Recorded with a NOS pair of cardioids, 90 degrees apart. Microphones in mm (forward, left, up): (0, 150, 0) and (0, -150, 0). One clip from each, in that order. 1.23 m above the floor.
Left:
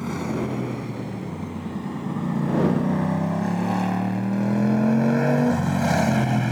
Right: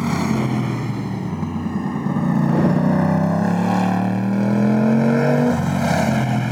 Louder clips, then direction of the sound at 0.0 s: Right 6 dB; 60° right.